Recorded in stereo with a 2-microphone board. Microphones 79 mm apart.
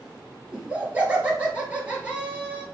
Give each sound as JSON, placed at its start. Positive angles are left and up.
{"t": 0.5, "sound": "laughter", "side_deg": -15, "distance_m": 2.0}